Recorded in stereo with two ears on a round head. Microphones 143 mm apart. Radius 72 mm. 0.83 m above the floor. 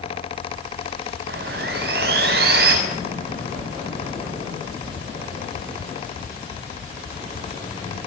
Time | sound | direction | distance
1.3 | sawing | 70° right (ahead or behind) | 7 m